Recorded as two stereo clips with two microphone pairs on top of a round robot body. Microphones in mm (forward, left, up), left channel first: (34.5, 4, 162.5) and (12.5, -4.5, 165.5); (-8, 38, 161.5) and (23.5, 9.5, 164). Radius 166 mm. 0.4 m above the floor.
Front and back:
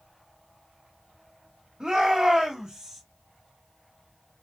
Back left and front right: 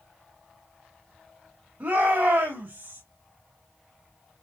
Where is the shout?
85° right, 4 m.